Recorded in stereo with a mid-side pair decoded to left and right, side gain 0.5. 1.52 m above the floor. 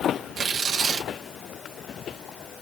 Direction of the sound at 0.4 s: 60° right.